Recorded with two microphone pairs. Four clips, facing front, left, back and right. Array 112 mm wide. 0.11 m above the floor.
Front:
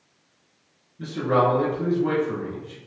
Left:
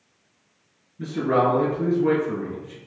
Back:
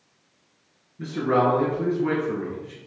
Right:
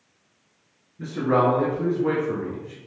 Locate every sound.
1.0 s a man speaking: 175° right, 1.5 m